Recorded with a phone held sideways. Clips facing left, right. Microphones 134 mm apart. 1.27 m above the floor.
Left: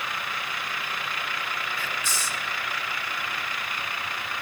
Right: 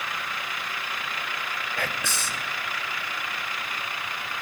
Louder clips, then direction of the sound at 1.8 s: Right 2 dB; 65° right (ahead or behind).